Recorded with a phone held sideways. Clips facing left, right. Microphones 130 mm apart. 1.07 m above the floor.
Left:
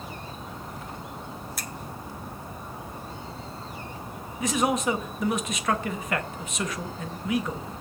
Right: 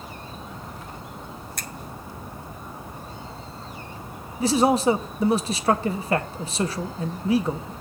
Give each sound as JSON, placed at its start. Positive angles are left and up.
{"t": 1.6, "sound": "a finger snap", "side_deg": 5, "distance_m": 1.3}
{"t": 4.4, "sound": "a man speaking", "side_deg": -35, "distance_m": 1.1}